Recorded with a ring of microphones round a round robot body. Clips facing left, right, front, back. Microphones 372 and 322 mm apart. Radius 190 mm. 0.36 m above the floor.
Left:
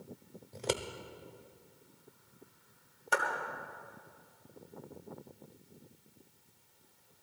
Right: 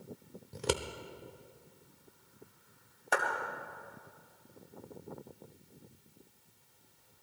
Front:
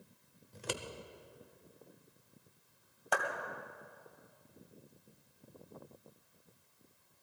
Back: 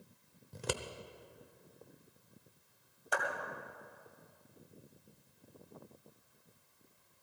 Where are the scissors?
155° right, 0.8 m.